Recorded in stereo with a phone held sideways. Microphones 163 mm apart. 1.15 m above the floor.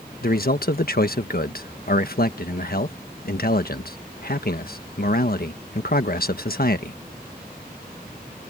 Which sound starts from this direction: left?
A man speaking, at 0.2 s.